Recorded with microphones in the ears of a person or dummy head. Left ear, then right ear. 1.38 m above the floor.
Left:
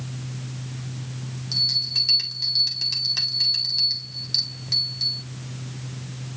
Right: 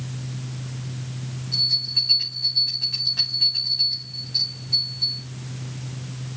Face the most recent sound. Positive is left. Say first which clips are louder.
# right 1 dB
turn(degrees=80)